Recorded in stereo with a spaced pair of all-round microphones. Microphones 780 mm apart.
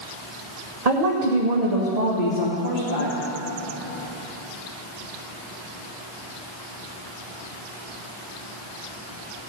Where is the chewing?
No chewing in this recording.